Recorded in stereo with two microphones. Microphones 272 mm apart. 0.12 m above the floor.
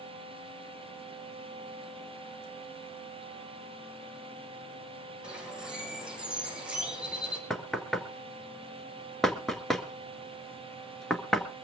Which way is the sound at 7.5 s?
Centre (ahead or behind).